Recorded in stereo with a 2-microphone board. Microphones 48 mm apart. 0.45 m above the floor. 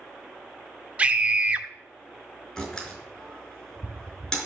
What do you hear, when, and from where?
1.0 s a scream: 25° right (ahead or behind), 0.9 m
2.6 s a door slam: 10° left (ahead or behind), 5 m